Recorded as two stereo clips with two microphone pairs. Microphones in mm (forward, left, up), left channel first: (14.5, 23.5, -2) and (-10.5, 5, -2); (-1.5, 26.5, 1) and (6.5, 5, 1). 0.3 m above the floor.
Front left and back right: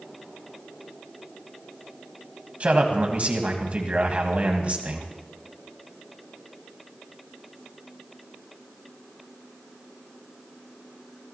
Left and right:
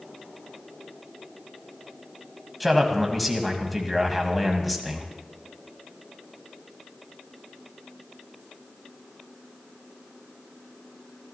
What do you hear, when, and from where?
2.6 s a man speaking: 160° right, 2.0 m